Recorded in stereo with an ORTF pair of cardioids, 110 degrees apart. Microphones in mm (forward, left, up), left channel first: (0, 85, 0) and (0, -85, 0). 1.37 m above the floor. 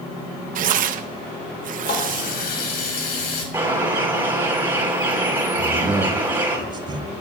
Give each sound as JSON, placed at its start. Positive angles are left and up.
{"t": 0.6, "sound": "tearing paper", "azimuth_deg": -55, "distance_m": 1.0}
{"t": 1.9, "sound": "a running tap", "azimuth_deg": 65, "distance_m": 5.0}
{"t": 3.5, "sound": "a bird", "azimuth_deg": -10, "distance_m": 9.0}
{"t": 5.6, "sound": "a man speaking", "azimuth_deg": -25, "distance_m": 7.0}